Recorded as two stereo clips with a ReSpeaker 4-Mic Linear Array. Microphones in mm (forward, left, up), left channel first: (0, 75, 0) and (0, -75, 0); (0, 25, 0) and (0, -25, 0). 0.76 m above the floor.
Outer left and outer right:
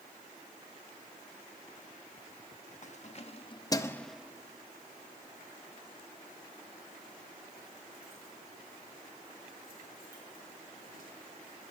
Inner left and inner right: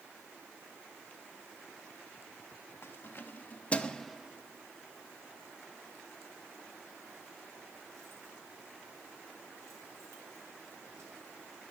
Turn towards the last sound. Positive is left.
turn(degrees=-80)